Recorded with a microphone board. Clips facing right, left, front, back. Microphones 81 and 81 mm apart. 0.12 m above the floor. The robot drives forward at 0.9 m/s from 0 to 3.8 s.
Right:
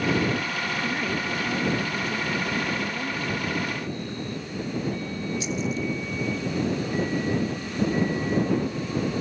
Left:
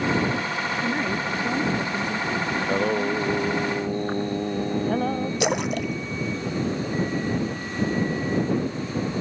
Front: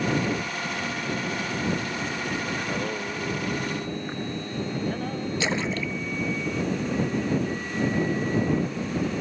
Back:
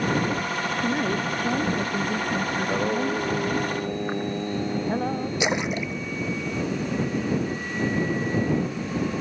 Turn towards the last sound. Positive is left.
turn(degrees=105)